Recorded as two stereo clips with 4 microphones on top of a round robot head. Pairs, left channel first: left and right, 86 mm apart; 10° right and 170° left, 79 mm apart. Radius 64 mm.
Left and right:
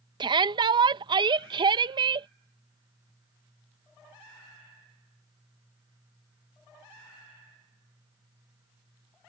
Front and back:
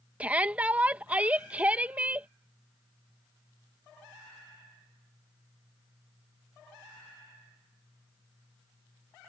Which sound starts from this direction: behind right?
A shout, at 0.2 s.